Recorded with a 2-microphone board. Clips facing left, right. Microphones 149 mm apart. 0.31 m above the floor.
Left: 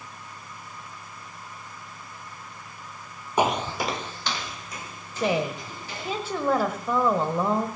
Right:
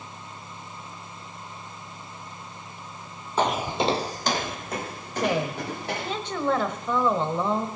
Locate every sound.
3.4 s footsteps: 15° left (ahead or behind), 0.5 m; by 6.2 s 65° right (ahead or behind), 3 m
5.2 s a woman speaking: 10° left (ahead or behind), 1.3 m